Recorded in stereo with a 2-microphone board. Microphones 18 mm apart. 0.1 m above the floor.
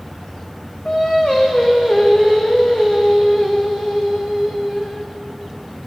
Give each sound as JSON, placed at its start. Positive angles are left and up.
{"t": 0.8, "sound": "singing", "side_deg": 50, "distance_m": 2.5}